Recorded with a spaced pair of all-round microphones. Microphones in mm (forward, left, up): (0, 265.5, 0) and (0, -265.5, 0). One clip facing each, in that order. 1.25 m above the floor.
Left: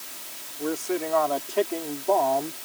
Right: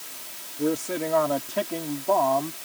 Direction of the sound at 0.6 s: 65° right (ahead or behind).